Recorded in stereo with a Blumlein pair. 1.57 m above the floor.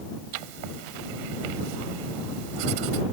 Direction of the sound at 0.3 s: 45° right.